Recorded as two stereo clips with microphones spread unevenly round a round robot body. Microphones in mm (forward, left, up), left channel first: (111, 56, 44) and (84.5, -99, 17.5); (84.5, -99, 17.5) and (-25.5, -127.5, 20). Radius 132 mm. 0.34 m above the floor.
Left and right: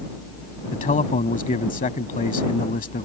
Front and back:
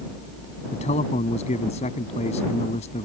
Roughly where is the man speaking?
Ahead left.